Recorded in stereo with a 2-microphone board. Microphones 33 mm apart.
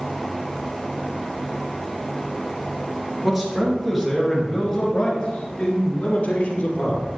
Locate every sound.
3.2 s a man speaking: 10° right (ahead or behind), 3.5 m; by 7.1 s 55° left (ahead or behind), 4 m